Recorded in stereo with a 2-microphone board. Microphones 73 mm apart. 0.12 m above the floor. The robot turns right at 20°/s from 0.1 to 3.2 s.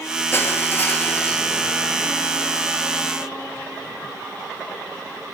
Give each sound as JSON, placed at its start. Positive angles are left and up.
{"t": 0.3, "sound": "crushing", "side_deg": 30, "distance_m": 1.1}